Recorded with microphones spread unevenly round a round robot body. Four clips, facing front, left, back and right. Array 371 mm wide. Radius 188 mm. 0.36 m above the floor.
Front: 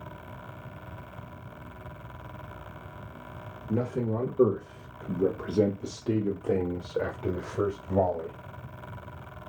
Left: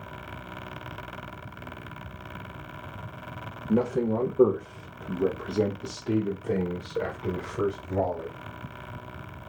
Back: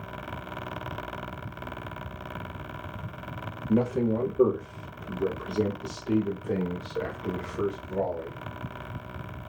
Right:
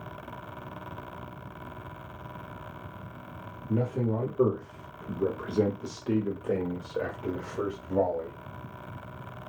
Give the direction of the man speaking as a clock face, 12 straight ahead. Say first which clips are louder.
Left 4 dB, back 4 dB; 7 o'clock.